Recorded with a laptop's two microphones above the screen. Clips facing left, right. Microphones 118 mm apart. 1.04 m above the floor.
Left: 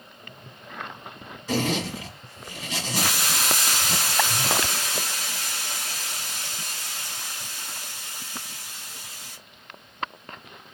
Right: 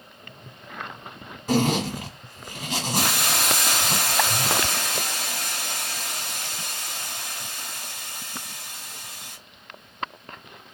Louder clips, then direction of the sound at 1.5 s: Right 4 dB; 55° right (ahead or behind).